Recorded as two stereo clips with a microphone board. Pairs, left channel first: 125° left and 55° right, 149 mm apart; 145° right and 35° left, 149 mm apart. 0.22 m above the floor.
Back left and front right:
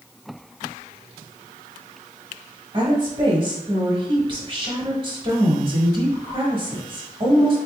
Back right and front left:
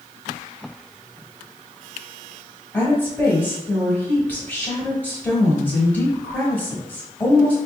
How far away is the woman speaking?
About 1.2 m.